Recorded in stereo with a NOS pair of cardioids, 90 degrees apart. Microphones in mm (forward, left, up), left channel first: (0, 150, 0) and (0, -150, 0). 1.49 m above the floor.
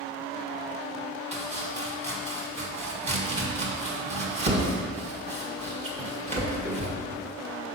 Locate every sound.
1.3 s chopping: 20° right, 1.6 m